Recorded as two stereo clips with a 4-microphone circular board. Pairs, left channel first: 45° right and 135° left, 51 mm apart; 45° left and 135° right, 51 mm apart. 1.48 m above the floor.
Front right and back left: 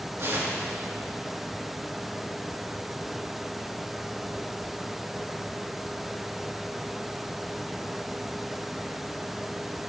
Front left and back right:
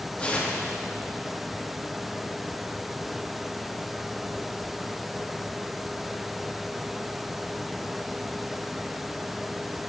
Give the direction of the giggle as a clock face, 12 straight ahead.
I don't hear a giggle.